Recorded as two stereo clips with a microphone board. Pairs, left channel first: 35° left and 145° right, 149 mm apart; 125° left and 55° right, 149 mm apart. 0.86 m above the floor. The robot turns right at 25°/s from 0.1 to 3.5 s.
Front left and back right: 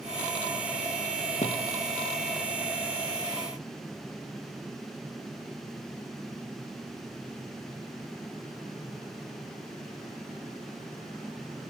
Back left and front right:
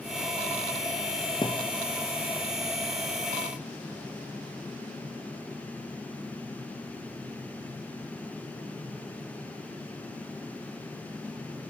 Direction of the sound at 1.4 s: 65° left.